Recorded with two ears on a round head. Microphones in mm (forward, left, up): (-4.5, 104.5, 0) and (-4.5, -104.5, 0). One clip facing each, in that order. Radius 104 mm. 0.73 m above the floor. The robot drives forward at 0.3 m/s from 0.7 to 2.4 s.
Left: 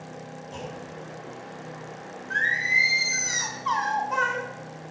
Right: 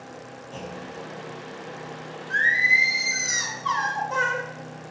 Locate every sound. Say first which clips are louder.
0.5 s a clunk: right 2 dB; 15° left (ahead or behind), 6.5 m
2.3 s singing: right 2 dB; 15° right (ahead or behind), 2.5 m